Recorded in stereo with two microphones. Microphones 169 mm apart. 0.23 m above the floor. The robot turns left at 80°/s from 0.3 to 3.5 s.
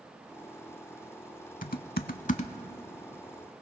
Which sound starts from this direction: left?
Typing on a keyboard, at 1.6 s.